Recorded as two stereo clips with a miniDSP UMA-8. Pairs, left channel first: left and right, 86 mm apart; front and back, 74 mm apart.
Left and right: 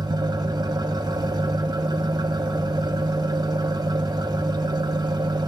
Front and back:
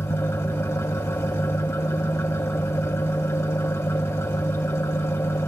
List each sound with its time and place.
0.0 s an engine running: 55° right, 1.0 m